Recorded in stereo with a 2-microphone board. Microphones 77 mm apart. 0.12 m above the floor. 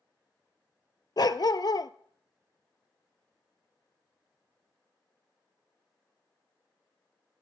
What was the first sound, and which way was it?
A dog barking, 60° left (ahead or behind).